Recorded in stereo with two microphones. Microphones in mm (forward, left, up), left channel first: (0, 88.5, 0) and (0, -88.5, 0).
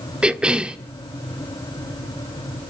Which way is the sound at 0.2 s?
5° right (ahead or behind).